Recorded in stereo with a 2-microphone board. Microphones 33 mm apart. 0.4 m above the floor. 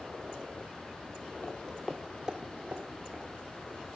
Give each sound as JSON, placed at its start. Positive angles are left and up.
{"t": 1.4, "sound": "footsteps", "side_deg": 60, "distance_m": 0.7}